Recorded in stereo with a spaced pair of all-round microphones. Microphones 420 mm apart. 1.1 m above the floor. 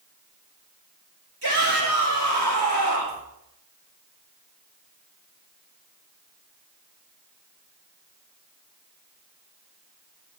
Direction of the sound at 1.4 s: 65° right (ahead or behind).